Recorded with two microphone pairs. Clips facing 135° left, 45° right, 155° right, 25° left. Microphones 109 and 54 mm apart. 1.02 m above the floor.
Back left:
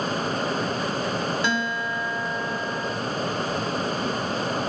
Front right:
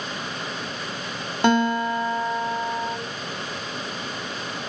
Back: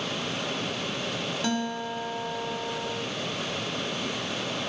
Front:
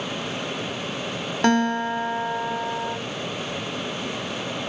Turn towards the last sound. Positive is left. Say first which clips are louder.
# front right 7 dB, front 12 dB
turn(degrees=-5)